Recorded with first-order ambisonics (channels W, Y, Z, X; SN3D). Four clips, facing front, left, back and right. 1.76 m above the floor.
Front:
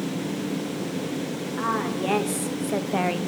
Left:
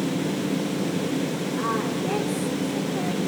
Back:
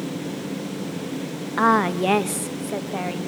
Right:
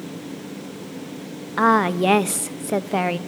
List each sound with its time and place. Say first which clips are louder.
1.6 s a woman speaking: right 11 dB, back 8 dB; 130° right, 1.1 m; by 3.2 s 70° right, 1.2 m